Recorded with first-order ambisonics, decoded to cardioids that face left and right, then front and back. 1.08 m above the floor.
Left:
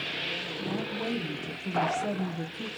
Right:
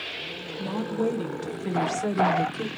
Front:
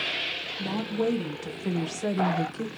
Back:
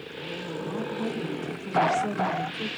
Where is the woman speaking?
40° right, 1.7 m; by 2.7 s 50° right, 0.7 m.